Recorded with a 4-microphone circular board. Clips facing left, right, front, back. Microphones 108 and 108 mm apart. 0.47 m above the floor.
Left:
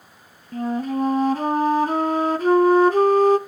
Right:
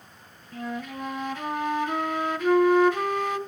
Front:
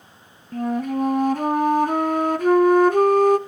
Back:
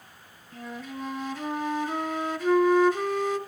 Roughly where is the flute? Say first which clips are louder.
Left 10 dB, front 14 dB; ahead left.